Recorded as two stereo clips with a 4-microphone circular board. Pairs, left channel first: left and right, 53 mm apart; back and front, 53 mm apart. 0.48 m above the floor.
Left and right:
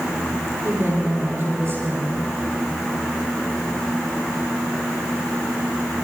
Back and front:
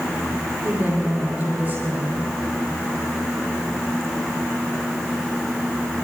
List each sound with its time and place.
0.6 s a woman speaking: 50° right, 9 m